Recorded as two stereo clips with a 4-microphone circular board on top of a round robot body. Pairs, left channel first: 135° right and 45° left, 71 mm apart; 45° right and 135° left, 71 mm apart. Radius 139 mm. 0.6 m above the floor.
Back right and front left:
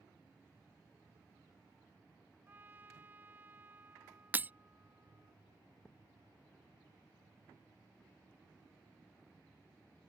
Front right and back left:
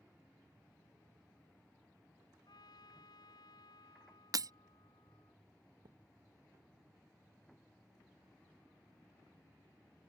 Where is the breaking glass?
110° left.